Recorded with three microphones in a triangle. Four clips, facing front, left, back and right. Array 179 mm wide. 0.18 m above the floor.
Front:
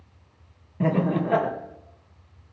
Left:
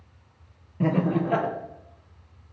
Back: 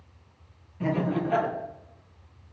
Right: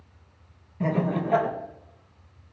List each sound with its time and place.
0.8 s laughter: 40° left, 4.5 m